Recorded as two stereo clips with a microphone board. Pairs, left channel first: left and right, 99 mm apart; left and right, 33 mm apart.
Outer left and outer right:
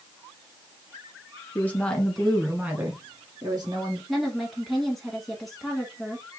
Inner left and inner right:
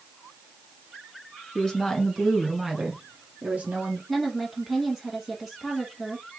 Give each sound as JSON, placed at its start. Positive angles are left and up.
{"t": 1.6, "sound": "a woman speaking", "side_deg": 20, "distance_m": 1.7}
{"t": 4.1, "sound": "a woman speaking", "side_deg": 0, "distance_m": 1.0}